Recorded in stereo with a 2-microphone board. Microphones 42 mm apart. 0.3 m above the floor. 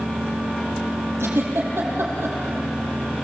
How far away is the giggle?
About 6 m.